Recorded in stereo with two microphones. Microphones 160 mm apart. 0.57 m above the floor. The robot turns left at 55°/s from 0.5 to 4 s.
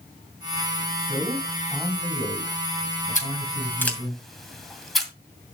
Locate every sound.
1.0 s a man speaking: 145° right, 5.5 m; by 4.2 s 50° left, 5.5 m
3.1 s scissors: 50° left (ahead or behind), 2 m; by 5.1 s centre (ahead or behind), 2 m